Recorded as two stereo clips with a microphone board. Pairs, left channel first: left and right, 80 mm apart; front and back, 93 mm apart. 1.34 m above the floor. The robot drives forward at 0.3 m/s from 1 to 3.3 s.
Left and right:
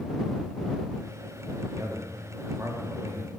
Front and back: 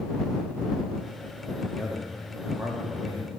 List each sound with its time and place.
1.7 s a man speaking: 85° right, 0.5 m; by 3.4 s 140° right, 0.7 m